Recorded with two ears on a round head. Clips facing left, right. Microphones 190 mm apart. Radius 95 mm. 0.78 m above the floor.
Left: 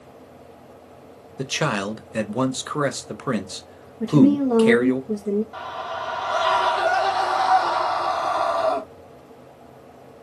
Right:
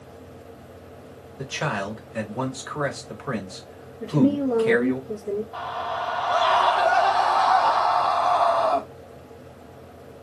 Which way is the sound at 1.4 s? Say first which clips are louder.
Left 4 dB; 55° left (ahead or behind).